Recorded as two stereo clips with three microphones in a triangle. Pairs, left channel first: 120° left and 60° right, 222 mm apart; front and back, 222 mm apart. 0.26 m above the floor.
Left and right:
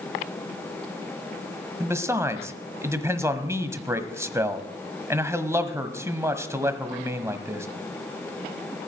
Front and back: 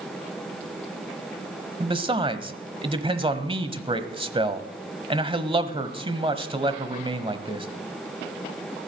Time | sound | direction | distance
1.8 | a man speaking | 130° right | 1.2 m